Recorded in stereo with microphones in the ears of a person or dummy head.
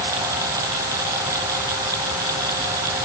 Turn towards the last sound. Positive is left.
No sound to turn to.